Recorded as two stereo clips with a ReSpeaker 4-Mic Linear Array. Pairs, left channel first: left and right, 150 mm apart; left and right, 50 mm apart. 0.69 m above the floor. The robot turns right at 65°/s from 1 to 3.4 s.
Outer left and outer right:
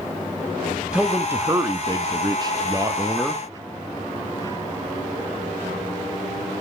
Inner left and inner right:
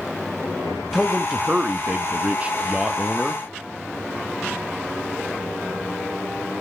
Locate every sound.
0.9 s a man speaking: 5° right (ahead or behind), 0.7 m